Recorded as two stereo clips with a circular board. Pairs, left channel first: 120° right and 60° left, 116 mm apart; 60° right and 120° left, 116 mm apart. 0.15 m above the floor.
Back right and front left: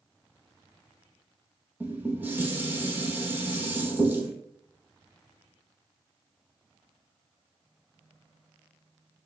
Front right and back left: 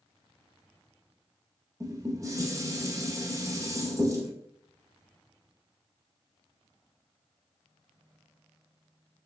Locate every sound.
1.8 s dishes clattering: 115° left, 0.8 m